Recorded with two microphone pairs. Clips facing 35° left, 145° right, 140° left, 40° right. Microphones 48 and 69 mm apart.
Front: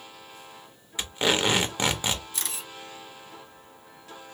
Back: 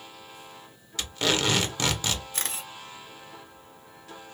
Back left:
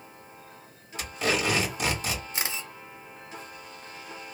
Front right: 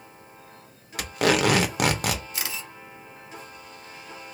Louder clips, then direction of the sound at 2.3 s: Back 2 dB, back left 1 dB; 170° right.